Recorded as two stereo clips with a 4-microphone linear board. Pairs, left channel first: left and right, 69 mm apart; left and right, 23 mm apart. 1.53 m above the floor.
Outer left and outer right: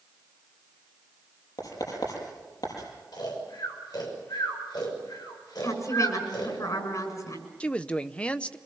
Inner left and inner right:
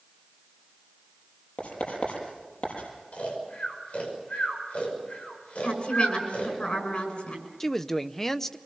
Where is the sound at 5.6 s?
55° left (ahead or behind), 6.5 m.